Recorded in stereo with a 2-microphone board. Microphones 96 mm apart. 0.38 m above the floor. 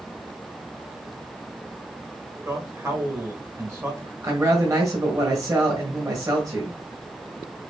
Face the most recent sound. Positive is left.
turn(degrees=-35)  # may be behind; listen again after turning